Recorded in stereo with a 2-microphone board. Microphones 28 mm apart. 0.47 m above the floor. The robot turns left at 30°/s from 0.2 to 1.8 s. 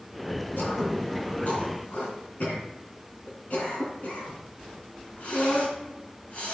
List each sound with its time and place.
0.6 s throat clearing: 75° left (ahead or behind), 4 m; by 6.6 s 60° left (ahead or behind), 4 m